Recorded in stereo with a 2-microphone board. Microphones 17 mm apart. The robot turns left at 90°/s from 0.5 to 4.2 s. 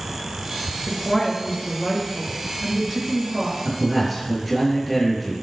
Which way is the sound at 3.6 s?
140° right.